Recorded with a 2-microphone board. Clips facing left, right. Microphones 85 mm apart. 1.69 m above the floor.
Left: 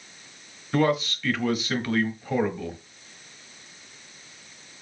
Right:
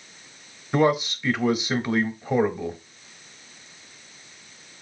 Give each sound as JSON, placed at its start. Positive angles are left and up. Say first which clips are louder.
{"t": 0.7, "sound": "a man speaking", "louder": "right 2 dB", "side_deg": -15, "distance_m": 0.6}